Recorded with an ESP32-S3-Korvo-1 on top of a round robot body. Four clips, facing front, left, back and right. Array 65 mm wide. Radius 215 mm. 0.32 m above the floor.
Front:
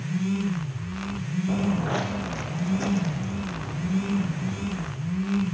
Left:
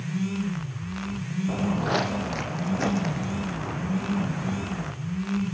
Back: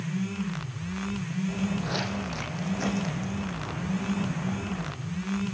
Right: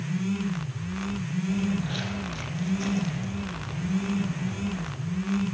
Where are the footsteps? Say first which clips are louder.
Left 4 dB, front 6 dB; 55° left, 1.1 m; by 4.9 s 100° left, 3.5 m.